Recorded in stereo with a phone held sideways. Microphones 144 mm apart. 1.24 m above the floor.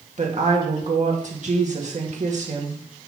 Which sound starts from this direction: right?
A woman speaking, at 0.2 s.